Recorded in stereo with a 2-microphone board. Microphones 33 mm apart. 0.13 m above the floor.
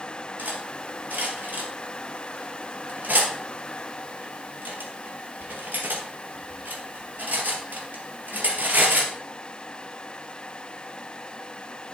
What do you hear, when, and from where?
0.4 s cutlery clinking: 65° right (ahead or behind), 1.9 m